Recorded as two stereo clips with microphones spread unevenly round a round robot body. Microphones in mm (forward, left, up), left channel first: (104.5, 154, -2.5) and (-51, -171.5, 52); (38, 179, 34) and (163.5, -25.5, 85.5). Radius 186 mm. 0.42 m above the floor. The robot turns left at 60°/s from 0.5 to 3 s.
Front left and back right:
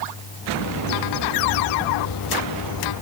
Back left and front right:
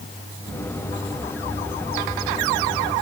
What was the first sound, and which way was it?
Only background noise.